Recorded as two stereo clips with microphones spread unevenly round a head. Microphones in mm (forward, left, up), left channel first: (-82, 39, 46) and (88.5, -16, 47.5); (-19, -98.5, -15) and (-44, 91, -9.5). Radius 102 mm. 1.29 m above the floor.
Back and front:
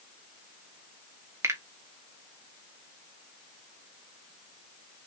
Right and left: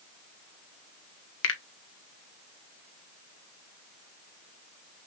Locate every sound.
1.4 s a finger snap: 95° right, 1.4 m